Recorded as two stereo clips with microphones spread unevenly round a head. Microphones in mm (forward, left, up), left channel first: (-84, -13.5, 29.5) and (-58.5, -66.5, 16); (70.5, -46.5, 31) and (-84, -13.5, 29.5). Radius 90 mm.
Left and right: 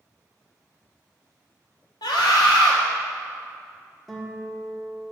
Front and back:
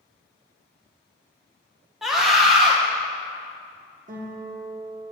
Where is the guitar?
165° right, 1.1 m.